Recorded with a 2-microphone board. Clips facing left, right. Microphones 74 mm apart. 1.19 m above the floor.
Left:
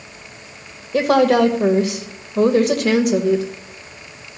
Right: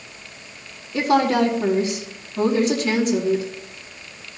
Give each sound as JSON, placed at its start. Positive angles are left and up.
{"t": 0.9, "sound": "a woman speaking", "side_deg": 65, "distance_m": 1.4}